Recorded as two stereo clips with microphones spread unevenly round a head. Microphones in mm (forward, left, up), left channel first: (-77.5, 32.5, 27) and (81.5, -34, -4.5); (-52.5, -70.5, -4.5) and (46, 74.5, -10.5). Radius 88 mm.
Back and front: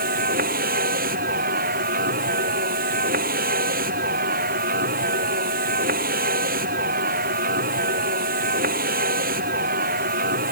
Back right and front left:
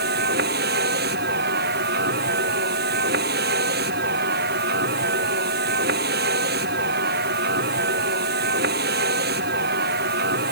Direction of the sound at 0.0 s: 20° left.